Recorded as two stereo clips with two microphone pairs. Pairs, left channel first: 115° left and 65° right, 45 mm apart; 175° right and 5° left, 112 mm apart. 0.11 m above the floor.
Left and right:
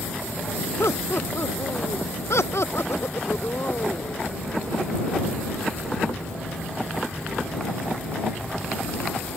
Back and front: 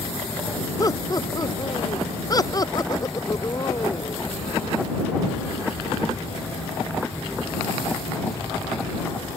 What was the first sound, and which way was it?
Laughter, 130° left.